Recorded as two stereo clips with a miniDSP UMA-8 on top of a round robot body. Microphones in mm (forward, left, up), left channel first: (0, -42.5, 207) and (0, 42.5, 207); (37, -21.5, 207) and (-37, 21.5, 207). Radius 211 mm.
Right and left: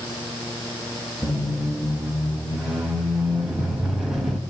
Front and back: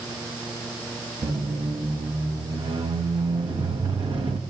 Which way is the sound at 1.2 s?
175° left.